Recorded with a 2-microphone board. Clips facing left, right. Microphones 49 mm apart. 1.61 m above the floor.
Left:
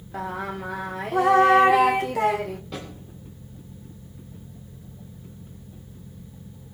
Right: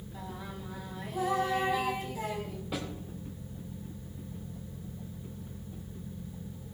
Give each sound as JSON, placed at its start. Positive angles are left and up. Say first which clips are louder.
{"t": 0.1, "sound": "singing", "louder": "left 13 dB", "side_deg": 80, "distance_m": 0.7}
{"t": 2.7, "sound": "a snare drum", "louder": "left 1 dB", "side_deg": -10, "distance_m": 7.5}